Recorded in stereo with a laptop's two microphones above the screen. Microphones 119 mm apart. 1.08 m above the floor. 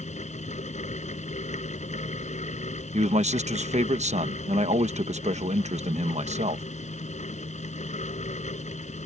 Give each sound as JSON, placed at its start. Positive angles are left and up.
{"t": 0.0, "sound": "a fan", "side_deg": 80}
{"t": 2.9, "sound": "a man speaking", "side_deg": -70}